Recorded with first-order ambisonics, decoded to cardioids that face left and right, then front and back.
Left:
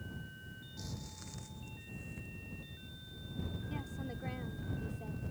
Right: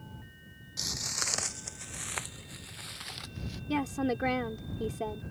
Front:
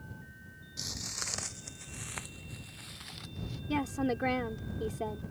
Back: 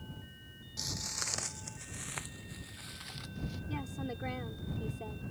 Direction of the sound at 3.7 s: 60° right.